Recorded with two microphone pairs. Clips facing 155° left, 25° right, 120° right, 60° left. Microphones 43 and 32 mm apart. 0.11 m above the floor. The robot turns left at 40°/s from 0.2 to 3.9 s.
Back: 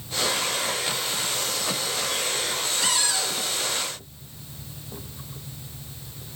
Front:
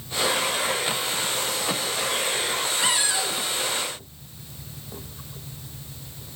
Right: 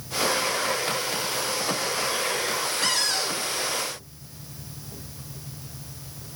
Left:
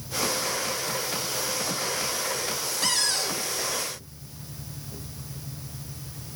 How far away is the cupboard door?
About 0.8 m.